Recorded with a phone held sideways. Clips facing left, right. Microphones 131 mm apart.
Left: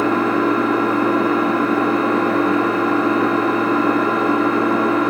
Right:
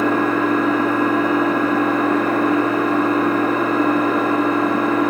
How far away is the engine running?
About 5 m.